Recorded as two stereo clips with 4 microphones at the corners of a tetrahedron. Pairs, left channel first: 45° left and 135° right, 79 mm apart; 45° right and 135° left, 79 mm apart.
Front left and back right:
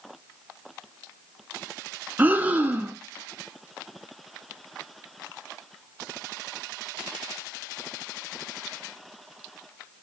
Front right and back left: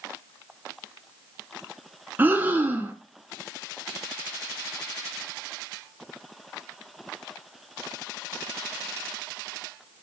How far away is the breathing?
About 0.5 m.